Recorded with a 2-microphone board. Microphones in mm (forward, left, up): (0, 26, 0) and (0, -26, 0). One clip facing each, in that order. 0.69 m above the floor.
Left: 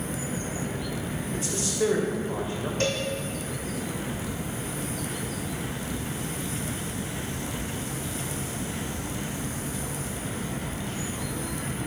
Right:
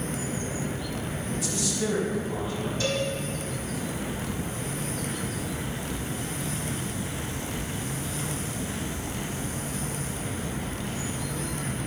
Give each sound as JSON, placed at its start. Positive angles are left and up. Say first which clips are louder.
{"t": 1.3, "sound": "a man speaking", "louder": "left 2 dB", "side_deg": 40, "distance_m": 3.0}
{"t": 2.8, "sound": "a cowbell", "louder": "even", "side_deg": 55, "distance_m": 2.5}